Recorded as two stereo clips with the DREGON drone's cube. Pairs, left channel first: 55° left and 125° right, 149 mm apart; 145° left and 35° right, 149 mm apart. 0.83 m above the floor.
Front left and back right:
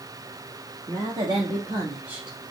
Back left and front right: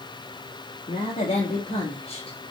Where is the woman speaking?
175° right, 1.3 m; by 2.4 s 145° left, 0.7 m.